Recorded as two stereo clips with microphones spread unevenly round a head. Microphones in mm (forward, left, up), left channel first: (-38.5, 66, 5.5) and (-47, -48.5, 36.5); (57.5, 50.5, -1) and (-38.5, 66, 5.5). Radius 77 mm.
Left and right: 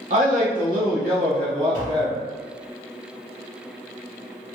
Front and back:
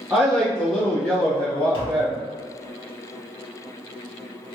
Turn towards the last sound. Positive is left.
turn(degrees=10)